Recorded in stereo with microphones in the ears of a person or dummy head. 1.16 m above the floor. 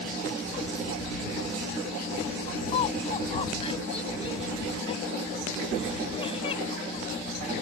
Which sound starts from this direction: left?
Laughter, at 2.7 s.